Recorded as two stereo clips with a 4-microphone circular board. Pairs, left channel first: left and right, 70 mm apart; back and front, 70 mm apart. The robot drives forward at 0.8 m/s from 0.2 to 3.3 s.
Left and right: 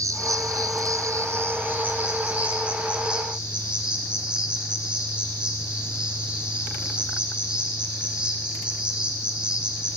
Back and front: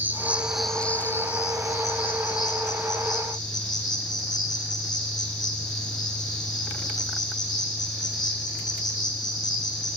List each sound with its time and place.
0.0 s an insect: 60° right, 0.7 m; by 10.0 s 165° right, 2.5 m